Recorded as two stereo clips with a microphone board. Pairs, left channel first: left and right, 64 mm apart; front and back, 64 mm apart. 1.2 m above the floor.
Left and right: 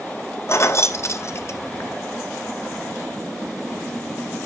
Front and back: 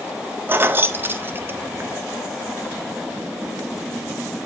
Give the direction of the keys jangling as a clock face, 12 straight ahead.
8 o'clock.